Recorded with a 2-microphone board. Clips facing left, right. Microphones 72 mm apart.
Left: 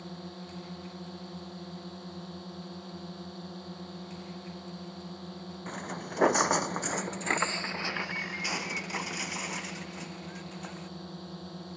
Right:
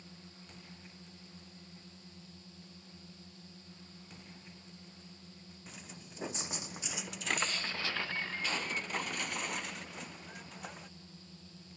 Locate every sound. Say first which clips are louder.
0.0 s a drone: left 12 dB; 60° left (ahead or behind)
5.7 s footsteps: left 15 dB; 55° left (ahead or behind); by 10.9 s centre (ahead or behind)